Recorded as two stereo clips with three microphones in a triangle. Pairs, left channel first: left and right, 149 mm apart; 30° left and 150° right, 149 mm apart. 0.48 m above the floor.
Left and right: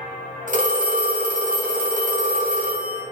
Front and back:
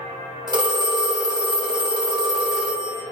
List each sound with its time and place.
0.5 s a phone ringing: 90° right, 1.0 m